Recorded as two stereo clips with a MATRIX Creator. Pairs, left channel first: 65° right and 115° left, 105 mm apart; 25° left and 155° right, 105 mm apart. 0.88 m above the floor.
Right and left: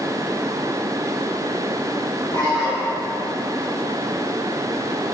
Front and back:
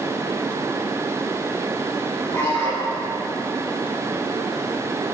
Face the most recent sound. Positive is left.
turn(degrees=-40)